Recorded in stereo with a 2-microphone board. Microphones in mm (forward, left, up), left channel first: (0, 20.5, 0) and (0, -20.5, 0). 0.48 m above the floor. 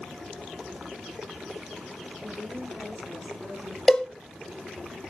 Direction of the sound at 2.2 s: 15° right (ahead or behind).